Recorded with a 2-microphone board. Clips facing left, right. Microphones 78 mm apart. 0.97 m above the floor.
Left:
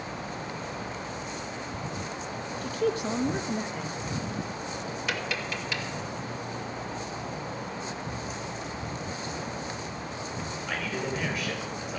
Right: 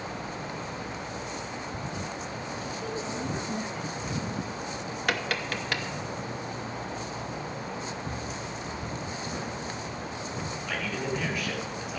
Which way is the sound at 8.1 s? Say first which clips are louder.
Even; 50° right (ahead or behind).